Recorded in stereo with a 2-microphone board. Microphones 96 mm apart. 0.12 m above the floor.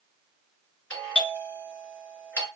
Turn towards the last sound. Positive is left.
turn(degrees=15)  # may be behind; listen again after turning